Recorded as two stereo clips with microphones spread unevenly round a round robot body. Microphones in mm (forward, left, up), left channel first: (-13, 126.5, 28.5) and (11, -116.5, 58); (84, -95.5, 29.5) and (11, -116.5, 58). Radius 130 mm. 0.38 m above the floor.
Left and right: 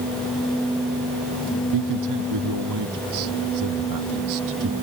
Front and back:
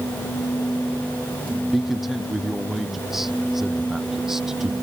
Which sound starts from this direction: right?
A man speaking, at 1.7 s.